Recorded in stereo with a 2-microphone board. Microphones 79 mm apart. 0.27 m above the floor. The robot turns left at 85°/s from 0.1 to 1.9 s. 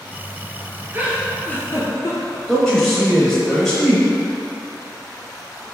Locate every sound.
0.9 s a giggle: 30° right (ahead or behind), 0.8 m; by 2.4 s 55° left (ahead or behind), 0.8 m
2.5 s a man speaking: 5° left (ahead or behind), 0.9 m